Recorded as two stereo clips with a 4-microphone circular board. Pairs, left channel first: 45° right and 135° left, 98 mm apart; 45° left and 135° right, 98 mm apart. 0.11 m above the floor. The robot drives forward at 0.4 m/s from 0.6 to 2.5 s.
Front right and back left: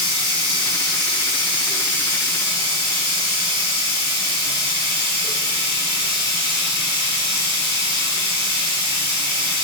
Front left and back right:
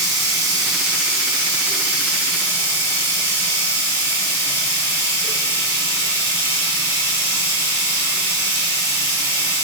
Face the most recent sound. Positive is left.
turn(degrees=155)